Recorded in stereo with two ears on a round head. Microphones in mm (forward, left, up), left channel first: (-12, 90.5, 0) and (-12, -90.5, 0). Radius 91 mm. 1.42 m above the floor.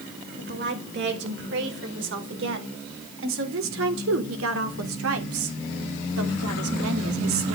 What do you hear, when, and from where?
0.4 s a woman speaking: 60° right (ahead or behind), 5.5 m; by 7.5 s 70° right (ahead or behind), 3.5 m